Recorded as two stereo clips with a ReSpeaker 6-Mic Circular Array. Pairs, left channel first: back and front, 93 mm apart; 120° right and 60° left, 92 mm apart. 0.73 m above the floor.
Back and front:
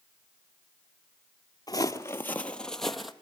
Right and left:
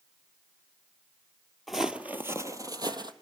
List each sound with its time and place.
1.7 s footsteps: 150° left, 1.1 m; by 3.1 s 90° left, 1.5 m